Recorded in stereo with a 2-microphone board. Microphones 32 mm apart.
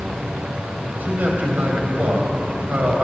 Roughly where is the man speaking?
Right.